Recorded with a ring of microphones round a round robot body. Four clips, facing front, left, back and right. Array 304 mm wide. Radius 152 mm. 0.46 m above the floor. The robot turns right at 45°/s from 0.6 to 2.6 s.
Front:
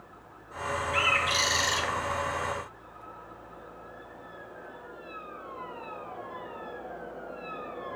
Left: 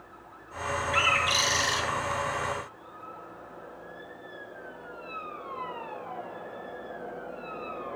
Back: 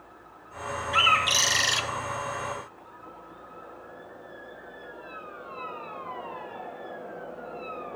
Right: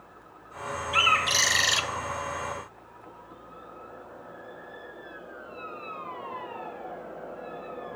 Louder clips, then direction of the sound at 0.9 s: Right 3 dB, back 6 dB; 160° right.